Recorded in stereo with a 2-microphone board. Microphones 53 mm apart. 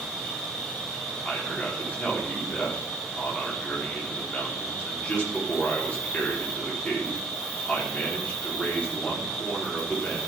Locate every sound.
0.0 s an insect: 15° left (ahead or behind), 2.5 m
1.2 s a man speaking: 25° left (ahead or behind), 4 m